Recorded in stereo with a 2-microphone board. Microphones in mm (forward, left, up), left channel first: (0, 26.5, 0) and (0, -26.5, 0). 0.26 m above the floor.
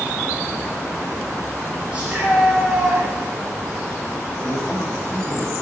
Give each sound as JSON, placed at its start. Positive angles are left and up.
{"t": 1.9, "sound": "a shout", "side_deg": -15, "distance_m": 5.0}
{"t": 4.4, "sound": "a man speaking", "side_deg": 25, "distance_m": 1.6}